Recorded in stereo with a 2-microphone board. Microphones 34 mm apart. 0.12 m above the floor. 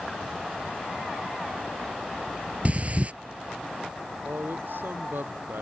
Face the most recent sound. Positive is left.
turn(degrees=-70)  # may be behind; listen again after turning